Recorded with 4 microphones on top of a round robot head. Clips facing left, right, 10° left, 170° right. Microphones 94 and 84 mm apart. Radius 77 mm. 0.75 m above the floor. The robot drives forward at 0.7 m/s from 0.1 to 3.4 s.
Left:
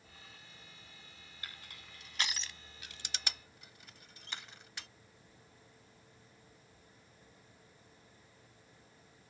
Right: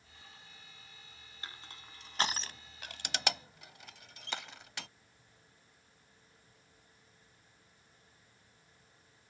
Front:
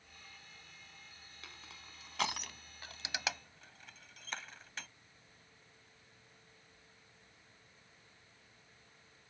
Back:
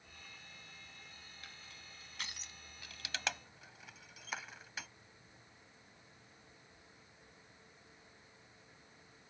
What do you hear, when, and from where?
1.4 s crushing: 25° right; by 4.9 s 85° right